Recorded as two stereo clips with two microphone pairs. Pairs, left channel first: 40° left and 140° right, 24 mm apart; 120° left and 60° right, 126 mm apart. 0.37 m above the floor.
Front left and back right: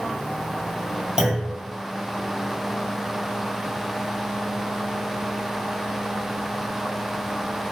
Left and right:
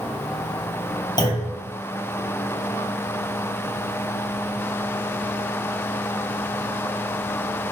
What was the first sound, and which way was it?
A clunk, 165° left.